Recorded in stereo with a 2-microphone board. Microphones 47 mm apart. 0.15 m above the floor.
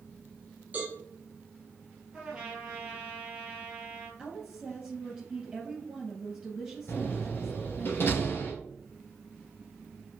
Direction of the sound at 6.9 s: 45° left (ahead or behind).